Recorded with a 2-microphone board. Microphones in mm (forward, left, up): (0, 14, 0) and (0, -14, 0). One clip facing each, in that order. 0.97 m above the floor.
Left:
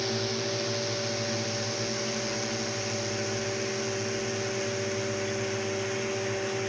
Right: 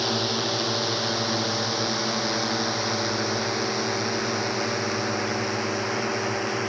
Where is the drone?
40° right (ahead or behind); by 6.7 s 50° right (ahead or behind).